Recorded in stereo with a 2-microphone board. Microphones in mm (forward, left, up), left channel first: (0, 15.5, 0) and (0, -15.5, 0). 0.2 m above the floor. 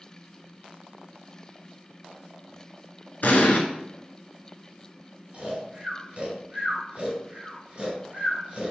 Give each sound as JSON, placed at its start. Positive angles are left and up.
{"t": 3.2, "sound": "an explosion", "side_deg": 65, "distance_m": 0.6}
{"t": 5.3, "sound": "snoring", "side_deg": -40, "distance_m": 1.4}